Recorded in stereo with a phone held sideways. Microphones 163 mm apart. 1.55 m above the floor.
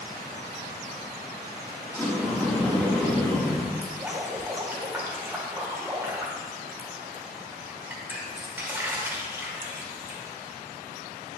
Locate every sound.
1.9 s a sliding door: 15° left (ahead or behind), 2.5 m
3.8 s dripping: 10° right (ahead or behind), 1.8 m